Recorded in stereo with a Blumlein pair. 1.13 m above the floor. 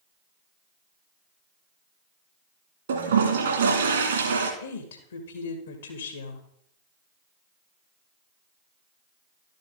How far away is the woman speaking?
About 1.8 m.